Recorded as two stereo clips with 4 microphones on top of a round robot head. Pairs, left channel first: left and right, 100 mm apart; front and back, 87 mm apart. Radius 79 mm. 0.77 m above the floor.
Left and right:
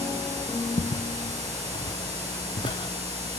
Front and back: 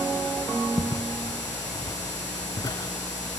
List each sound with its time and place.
0.8 s footsteps: 75° left, 1.7 m; by 3.4 s 45° left, 3.5 m